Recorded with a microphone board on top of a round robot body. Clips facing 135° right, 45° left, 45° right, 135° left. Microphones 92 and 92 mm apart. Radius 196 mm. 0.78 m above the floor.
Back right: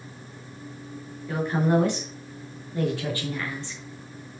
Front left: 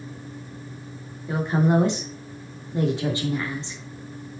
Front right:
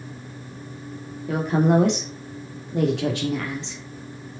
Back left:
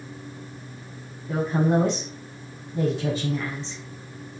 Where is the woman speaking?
25° right, 3 m.